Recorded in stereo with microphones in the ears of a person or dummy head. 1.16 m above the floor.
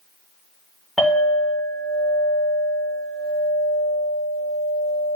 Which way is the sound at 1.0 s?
Centre (ahead or behind).